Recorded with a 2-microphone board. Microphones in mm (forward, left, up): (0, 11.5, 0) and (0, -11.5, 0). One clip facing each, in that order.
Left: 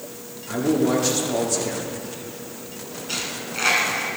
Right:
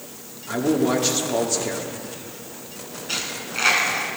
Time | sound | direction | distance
0.5 | a man speaking | 15° right (ahead or behind) | 1.7 m
3.1 | a dropped coin | 5° right (ahead or behind) | 2 m